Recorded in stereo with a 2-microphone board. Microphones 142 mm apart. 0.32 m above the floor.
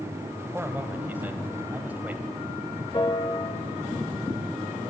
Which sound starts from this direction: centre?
A man speaking, at 0.5 s.